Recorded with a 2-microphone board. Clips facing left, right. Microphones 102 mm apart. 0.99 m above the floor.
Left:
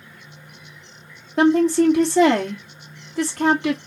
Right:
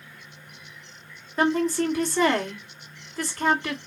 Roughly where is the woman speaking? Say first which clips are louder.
Left 7 dB; left.